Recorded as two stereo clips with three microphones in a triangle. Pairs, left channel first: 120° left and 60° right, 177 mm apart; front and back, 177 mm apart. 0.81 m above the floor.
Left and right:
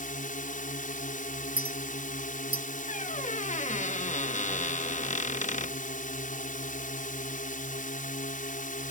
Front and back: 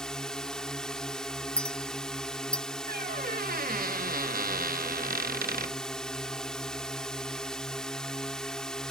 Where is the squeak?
160° left.